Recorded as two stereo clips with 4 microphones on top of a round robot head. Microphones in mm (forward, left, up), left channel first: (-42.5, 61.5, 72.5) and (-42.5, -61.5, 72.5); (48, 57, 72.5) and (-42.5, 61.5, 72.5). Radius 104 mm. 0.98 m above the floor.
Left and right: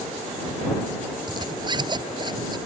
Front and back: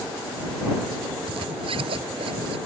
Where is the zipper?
145° right.